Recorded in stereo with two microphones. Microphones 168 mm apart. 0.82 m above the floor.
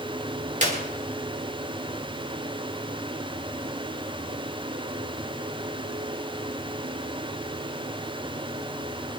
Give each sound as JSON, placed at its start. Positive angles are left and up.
{"t": 0.6, "sound": "a clap", "side_deg": -45, "distance_m": 3.0}